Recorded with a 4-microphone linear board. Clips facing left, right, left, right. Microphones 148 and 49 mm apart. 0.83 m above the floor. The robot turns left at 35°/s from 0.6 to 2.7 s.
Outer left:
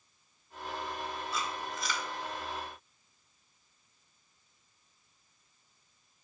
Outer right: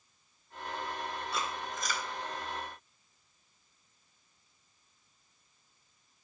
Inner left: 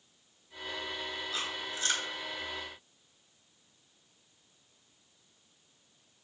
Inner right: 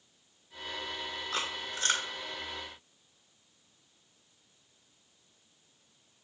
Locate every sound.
1.3 s chewing: 65° right (ahead or behind), 1.8 m; by 2.1 s 40° right (ahead or behind), 1.8 m